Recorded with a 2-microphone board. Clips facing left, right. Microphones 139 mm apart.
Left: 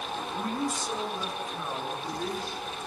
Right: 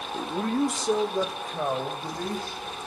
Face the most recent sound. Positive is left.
turn(degrees=-85)